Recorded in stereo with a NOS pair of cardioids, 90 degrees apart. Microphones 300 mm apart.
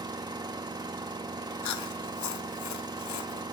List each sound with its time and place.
0.0 s an engine running: 15° right, 2 m
1.6 s chewing: 65° left, 1.2 m